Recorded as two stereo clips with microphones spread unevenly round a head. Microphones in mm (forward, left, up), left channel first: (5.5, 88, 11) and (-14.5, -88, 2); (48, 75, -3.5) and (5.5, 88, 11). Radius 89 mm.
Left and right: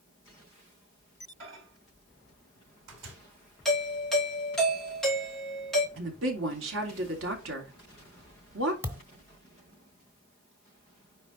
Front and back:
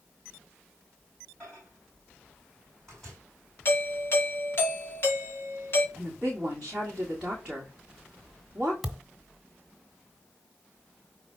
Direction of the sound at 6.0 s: 110° right.